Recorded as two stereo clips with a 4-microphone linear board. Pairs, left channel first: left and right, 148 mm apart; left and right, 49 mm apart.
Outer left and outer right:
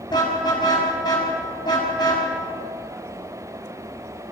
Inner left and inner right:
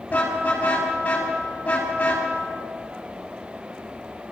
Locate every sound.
0.1 s a car horn: 30° left (ahead or behind), 6.5 m